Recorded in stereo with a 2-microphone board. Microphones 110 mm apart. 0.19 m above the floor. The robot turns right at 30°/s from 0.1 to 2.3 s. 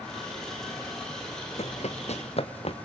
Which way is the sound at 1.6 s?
75° left (ahead or behind).